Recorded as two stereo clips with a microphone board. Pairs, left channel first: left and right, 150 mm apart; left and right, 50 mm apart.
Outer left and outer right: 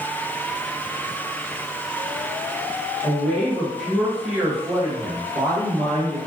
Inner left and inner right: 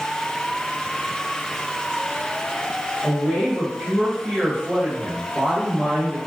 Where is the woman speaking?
20° left (ahead or behind), 1.5 m; by 6.2 s 40° right (ahead or behind), 1.9 m.